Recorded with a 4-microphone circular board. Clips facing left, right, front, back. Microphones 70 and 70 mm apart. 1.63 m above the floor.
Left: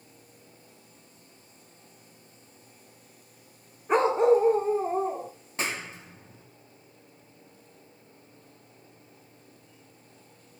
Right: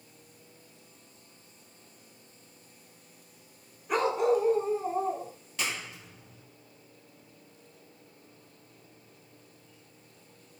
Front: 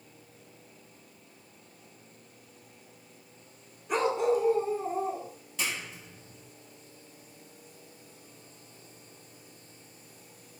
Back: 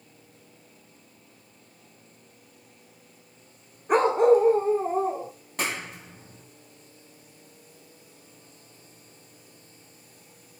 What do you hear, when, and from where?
3.9 s a dog barking: 145° left, 2.0 m; by 5.3 s 135° left, 3 m
5.6 s a clap: 145° left, 2.5 m